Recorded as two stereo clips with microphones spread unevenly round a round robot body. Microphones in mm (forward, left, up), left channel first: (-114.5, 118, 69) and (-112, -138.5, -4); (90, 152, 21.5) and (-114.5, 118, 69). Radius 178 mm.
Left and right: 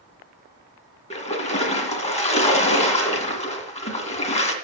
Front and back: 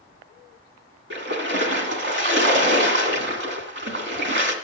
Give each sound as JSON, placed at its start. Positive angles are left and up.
{"t": 1.1, "sound": "a splash", "azimuth_deg": 160, "distance_m": 2.0}